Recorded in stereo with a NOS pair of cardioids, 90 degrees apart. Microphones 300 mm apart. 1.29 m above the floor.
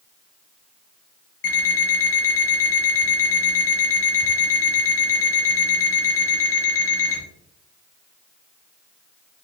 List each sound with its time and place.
1.4 s an alarm clock: 50° left, 1.5 m